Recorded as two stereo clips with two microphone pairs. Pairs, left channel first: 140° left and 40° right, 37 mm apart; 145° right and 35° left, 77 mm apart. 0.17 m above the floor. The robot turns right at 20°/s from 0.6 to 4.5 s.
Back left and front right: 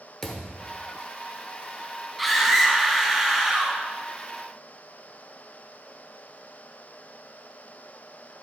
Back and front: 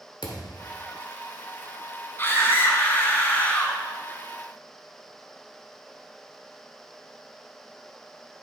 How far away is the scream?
About 1.2 m.